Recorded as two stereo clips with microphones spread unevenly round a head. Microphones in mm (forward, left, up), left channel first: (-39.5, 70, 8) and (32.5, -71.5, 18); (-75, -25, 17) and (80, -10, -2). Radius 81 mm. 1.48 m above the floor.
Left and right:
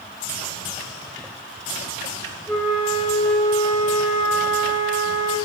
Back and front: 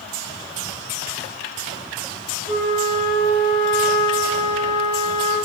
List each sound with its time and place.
2.5 s a flute: 35° left, 1.5 m